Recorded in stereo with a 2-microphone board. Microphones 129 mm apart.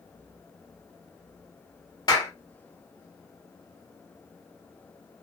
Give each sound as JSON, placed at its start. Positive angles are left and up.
{"t": 2.1, "sound": "a clap", "side_deg": 35, "distance_m": 0.9}